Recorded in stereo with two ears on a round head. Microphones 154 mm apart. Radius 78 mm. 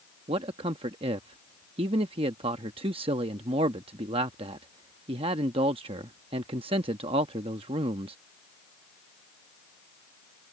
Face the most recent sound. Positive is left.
turn(degrees=-30)  # may be behind; listen again after turning